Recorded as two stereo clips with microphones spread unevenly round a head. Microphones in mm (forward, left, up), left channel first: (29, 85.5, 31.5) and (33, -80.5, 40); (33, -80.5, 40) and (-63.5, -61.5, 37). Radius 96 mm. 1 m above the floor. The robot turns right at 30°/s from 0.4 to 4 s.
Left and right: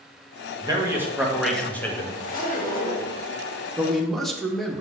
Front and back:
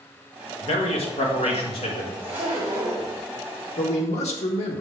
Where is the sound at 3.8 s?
5° right, 1.3 m; by 4.8 s 5° left, 1.3 m.